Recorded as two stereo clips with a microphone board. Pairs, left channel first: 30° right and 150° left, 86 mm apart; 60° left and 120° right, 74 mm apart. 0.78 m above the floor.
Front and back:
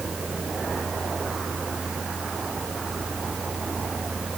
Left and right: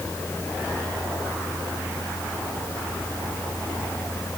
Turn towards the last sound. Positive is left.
No sound to turn to.